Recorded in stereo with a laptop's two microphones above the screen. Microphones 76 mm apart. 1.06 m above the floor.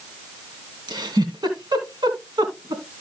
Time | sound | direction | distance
0.9 | a giggle | 70° right (ahead or behind) | 2.5 m